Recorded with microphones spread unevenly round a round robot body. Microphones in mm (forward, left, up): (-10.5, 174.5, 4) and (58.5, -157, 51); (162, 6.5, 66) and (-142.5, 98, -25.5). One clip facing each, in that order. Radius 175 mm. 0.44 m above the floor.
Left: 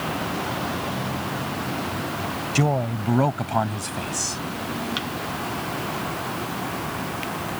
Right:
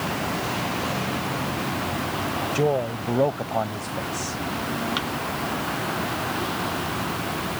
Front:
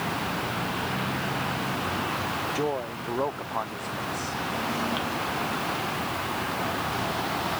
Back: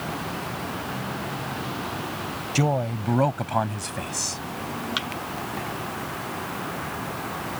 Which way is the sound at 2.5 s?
155° left.